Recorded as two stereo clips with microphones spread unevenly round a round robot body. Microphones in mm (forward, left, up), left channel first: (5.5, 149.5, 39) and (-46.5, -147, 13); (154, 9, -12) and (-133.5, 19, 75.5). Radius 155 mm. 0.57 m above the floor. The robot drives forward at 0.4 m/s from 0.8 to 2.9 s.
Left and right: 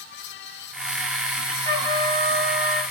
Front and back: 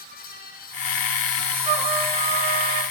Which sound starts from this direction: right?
A trumpet, at 1.6 s.